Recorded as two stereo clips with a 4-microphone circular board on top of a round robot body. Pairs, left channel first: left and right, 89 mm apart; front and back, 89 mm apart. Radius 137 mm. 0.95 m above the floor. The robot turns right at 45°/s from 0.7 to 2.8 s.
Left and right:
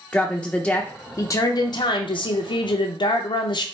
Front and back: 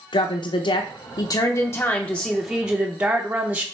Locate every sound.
0.1 s a woman speaking: 10° left, 0.5 m; by 3.6 s 105° left, 0.5 m